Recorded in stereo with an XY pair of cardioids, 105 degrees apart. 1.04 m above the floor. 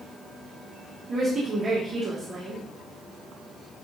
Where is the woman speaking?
45° right, 1.9 m.